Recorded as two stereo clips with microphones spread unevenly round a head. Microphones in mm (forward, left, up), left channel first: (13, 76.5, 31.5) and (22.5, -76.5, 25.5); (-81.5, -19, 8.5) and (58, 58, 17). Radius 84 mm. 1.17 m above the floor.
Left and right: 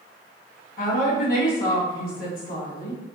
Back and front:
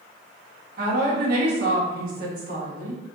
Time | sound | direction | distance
0.8 | a woman speaking | 60° left | 1.6 m